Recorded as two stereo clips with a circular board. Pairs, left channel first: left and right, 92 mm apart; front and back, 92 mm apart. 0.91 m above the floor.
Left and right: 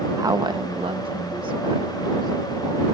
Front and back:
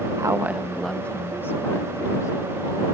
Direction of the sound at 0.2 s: 140° right.